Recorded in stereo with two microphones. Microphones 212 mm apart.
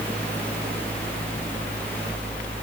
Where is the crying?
I don't hear crying.